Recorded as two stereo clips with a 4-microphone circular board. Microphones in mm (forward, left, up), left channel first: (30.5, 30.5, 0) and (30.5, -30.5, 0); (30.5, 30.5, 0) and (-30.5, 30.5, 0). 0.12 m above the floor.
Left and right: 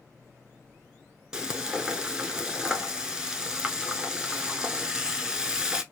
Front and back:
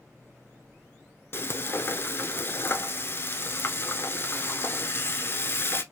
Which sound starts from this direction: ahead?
Frying, at 1.3 s.